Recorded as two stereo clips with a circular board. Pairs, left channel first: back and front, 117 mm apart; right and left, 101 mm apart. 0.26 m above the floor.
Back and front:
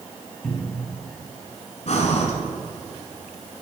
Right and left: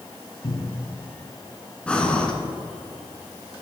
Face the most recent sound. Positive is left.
turn(degrees=-170)